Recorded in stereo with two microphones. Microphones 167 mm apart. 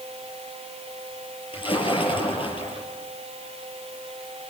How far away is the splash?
About 7 m.